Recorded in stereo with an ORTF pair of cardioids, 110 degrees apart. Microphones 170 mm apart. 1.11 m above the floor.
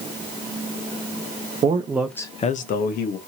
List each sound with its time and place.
1.6 s a man speaking: 35° right, 0.7 m; by 3.2 s 75° left, 1.1 m